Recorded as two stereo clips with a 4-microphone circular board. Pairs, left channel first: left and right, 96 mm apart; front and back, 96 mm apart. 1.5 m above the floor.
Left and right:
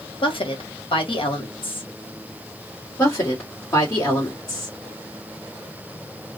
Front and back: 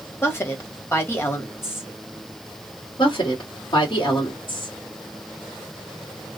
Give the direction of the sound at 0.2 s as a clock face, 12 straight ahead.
10 o'clock.